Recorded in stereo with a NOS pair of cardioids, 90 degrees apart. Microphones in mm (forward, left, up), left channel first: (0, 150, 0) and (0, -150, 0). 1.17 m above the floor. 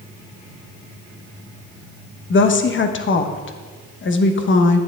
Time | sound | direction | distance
2.3 | a woman speaking | 40° left | 1.0 m